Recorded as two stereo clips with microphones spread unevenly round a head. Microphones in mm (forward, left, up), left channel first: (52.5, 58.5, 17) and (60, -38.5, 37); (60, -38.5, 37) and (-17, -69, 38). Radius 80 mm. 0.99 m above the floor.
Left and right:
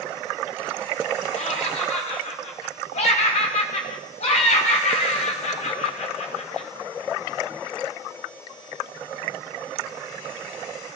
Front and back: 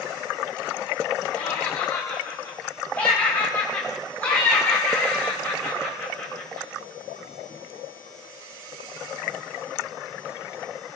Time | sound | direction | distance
1.3 | laughter | 100° left | 2.5 m